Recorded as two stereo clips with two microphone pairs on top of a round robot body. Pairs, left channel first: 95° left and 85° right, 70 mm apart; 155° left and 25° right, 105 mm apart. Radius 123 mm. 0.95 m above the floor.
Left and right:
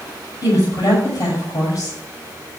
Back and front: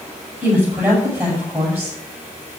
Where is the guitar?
No guitar in this recording.